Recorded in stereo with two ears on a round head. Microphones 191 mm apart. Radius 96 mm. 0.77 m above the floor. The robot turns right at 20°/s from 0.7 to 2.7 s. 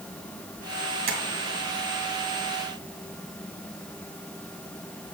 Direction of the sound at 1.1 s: 45° right (ahead or behind).